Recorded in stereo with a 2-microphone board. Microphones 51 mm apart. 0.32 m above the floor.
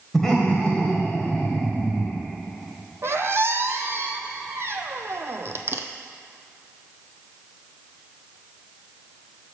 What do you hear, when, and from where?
0.1 s laughter: 5° left (ahead or behind), 1.4 m; by 2.2 s 25° left (ahead or behind), 3 m
3.0 s a squeak: 55° right (ahead or behind), 0.7 m